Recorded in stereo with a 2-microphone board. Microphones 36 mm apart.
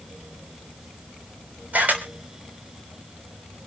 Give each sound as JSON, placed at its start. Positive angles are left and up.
{"t": 1.7, "sound": "a camera shutter", "side_deg": -55, "distance_m": 3.5}